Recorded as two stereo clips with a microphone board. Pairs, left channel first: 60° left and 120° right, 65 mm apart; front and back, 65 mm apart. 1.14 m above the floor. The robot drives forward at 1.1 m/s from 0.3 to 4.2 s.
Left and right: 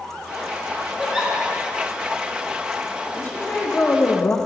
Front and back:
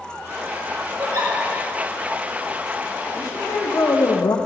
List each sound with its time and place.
1.0 s a giggle: 160° left, 1.4 m
3.1 s a woman speaking: straight ahead, 1.8 m; by 4.4 s 5° left, 0.7 m